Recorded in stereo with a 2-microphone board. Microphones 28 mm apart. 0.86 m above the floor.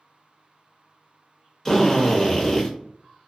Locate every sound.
1.6 s a drill: 10° left (ahead or behind), 0.9 m